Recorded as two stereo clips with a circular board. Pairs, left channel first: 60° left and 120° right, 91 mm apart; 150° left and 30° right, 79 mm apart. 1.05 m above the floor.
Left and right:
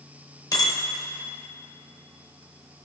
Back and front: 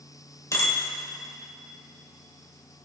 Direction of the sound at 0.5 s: 105° left.